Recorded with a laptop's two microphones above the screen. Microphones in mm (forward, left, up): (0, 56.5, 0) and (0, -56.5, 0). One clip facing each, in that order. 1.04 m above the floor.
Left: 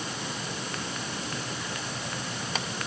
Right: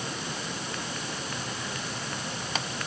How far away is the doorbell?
I don't hear a doorbell.